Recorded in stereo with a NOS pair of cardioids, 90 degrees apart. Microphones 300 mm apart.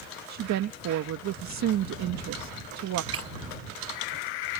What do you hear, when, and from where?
0.3 s a woman speaking: 65° right
3.1 s breaking glass: 50° right